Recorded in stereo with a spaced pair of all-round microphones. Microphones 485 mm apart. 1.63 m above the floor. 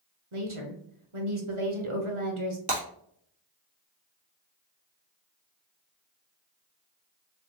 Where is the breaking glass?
30° right (ahead or behind), 1.9 m.